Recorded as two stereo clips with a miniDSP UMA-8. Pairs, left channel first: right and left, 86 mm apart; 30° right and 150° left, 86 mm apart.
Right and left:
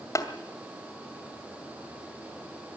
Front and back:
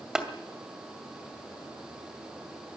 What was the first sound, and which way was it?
Tapping, 130° right.